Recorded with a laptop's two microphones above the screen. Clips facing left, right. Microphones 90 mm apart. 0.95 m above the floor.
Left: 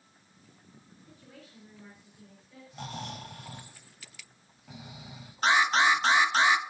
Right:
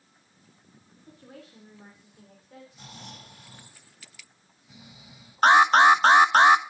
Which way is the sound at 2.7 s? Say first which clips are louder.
Left 7 dB; 80° left.